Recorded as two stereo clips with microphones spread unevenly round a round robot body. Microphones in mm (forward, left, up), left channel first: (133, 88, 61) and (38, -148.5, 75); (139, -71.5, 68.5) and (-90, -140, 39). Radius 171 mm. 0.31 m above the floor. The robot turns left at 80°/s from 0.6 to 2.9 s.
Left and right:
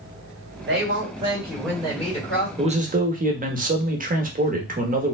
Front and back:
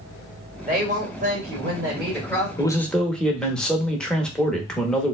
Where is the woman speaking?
130° right, 1.7 m; by 2.5 s 85° left, 1.7 m.